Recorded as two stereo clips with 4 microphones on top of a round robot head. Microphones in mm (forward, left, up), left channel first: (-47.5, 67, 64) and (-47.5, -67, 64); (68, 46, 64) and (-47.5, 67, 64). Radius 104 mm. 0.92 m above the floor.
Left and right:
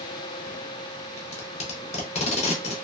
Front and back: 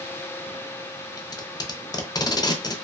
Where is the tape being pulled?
50° left, 0.6 m.